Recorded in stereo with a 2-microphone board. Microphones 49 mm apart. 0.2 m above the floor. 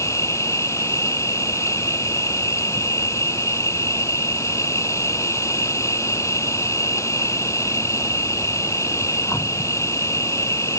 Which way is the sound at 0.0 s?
80° left.